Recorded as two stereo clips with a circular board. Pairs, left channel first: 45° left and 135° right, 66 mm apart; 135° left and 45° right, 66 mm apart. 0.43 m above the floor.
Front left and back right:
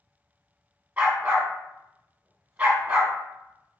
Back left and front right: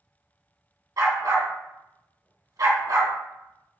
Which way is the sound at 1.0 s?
65° right.